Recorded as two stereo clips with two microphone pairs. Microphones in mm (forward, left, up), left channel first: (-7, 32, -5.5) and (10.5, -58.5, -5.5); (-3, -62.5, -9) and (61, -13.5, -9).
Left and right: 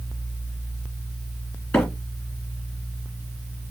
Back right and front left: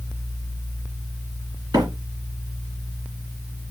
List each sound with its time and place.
1.7 s a microwave: 20° left, 2 m